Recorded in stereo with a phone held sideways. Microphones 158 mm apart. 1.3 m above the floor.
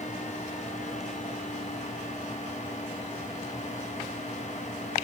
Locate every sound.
0.0 s a fan: 45° left (ahead or behind), 0.9 m